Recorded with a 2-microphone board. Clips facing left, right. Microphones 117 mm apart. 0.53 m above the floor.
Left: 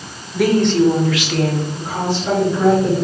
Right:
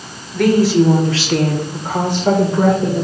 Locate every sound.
0.3 s a woman speaking: 5° left (ahead or behind), 1.2 m; by 3.0 s 55° right (ahead or behind), 2.5 m